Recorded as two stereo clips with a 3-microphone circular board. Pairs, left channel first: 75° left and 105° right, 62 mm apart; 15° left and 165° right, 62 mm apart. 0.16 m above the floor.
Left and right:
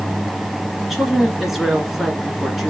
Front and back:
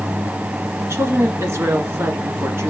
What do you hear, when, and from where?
0.8 s a woman speaking: 170° left, 1.6 m